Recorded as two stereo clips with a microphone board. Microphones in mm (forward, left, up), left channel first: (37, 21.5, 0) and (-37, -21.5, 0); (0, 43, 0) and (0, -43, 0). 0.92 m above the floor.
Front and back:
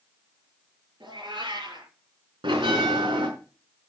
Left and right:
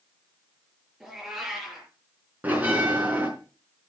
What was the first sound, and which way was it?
A cat meowing, 175° right.